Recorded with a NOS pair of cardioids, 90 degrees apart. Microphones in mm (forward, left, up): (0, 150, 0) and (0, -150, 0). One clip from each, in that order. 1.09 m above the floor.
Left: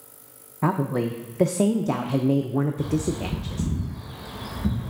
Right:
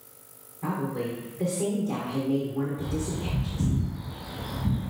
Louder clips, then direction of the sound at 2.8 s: Left 5 dB; 65° left.